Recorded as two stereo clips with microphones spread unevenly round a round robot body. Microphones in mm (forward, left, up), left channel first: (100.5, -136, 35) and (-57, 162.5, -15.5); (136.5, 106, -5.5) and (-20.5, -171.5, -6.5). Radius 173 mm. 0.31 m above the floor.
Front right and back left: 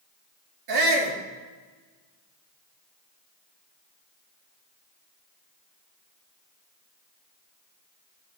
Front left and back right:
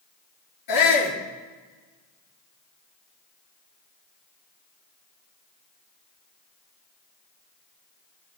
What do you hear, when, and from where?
0.7 s a shout: 95° left, 5 m